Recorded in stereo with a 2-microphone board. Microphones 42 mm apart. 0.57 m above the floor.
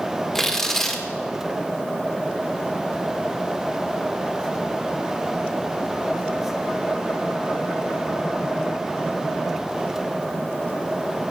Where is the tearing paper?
10° left (ahead or behind), 1.6 m.